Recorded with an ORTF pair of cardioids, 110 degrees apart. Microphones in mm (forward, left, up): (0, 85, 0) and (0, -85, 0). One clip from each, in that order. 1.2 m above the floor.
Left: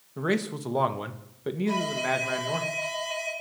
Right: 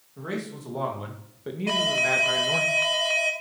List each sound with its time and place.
0.2 s a man speaking: 50° left, 2 m; by 2.7 s 10° right, 1.9 m
1.7 s an alarm: 65° right, 5.5 m